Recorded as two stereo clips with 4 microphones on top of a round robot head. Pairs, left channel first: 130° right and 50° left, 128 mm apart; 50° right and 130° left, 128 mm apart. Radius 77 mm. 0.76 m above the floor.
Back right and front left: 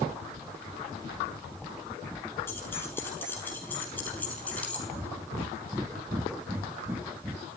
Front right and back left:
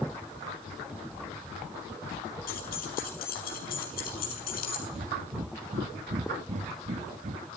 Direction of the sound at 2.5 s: 60° right.